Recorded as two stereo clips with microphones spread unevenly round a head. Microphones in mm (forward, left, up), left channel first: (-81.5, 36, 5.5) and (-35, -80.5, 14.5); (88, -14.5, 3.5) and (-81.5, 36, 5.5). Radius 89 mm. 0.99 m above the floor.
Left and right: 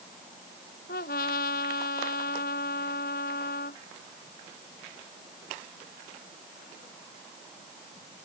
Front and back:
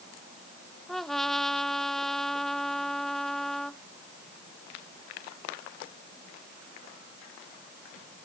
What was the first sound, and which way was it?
A trumpet, 70° left.